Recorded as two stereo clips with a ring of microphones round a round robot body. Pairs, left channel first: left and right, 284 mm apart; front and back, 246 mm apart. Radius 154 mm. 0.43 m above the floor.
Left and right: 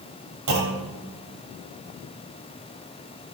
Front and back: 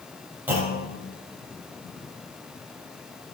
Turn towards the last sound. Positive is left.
turn(degrees=-100)